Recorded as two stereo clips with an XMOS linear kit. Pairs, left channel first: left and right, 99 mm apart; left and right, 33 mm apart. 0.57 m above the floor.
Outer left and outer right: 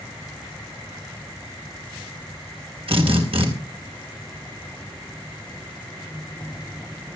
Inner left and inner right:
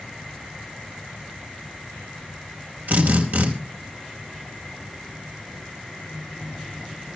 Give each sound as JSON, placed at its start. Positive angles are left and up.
{"t": 2.9, "sound": "a drill", "side_deg": -70, "distance_m": 3.5}